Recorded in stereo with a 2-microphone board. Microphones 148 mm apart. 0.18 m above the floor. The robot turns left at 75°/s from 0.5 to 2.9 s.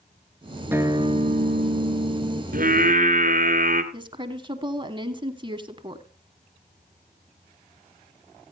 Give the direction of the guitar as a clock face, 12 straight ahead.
12 o'clock.